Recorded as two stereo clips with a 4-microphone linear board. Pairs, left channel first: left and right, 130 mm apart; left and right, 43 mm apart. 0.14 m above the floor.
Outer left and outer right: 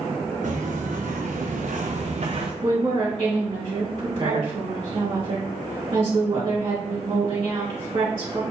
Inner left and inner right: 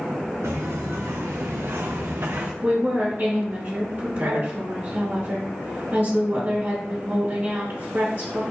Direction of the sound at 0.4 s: 80° right.